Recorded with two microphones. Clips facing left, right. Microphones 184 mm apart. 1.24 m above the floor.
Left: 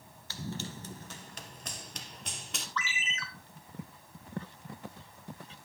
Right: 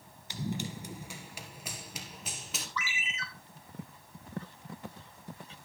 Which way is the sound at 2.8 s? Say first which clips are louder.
Left 2 dB; 10° right (ahead or behind).